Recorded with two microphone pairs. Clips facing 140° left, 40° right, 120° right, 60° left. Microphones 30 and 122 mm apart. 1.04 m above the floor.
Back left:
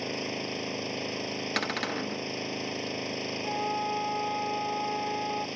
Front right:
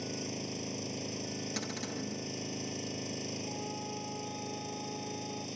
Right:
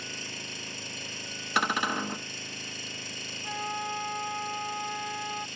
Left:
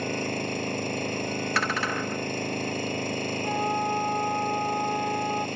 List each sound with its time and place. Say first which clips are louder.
0.0 s an engine running: back left 6 dB, left 14 dB; 95° left
1.6 s a cupboard door: back left 8 dB, right 3 dB; 170° left
3.4 s a flute: back left 10 dB, left 6 dB; 115° left